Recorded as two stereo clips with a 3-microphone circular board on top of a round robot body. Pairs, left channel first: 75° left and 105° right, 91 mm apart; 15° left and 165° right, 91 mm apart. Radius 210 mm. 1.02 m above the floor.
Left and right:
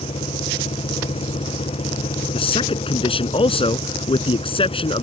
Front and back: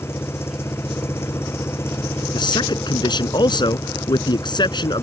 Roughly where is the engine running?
Left.